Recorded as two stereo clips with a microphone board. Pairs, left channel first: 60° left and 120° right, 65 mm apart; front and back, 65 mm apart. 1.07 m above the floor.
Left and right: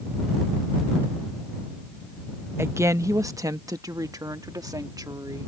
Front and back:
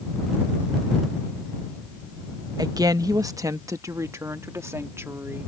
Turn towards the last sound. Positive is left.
turn(degrees=-135)